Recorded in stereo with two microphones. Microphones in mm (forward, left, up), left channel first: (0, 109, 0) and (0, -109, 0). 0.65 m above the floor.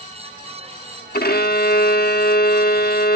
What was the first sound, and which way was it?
A violin, 45° left (ahead or behind).